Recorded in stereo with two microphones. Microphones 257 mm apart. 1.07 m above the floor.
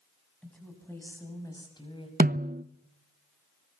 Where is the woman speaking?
5° left (ahead or behind), 8 m; by 2.1 s 20° left (ahead or behind), 7 m.